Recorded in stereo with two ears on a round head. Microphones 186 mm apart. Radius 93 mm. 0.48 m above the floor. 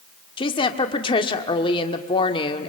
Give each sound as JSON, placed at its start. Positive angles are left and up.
{"t": 0.4, "sound": "a woman speaking", "side_deg": 25, "distance_m": 1.4}